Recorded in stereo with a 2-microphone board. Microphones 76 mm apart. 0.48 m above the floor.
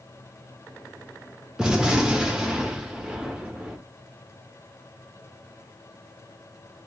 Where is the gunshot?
10° right (ahead or behind), 0.8 m.